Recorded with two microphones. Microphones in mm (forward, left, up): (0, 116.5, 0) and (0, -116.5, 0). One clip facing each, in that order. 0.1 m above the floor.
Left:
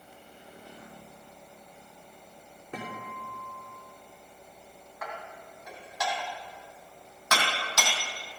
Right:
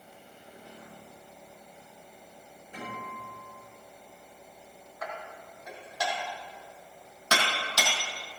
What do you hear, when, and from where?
2.7 s a guitar: 80° left, 4.5 m
5.0 s dishes clattering: 35° right (ahead or behind), 2.5 m